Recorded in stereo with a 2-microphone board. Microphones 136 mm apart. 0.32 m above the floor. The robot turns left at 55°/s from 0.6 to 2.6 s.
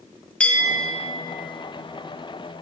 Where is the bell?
10° left (ahead or behind), 1.7 m; by 1.1 s 15° right (ahead or behind), 1.7 m.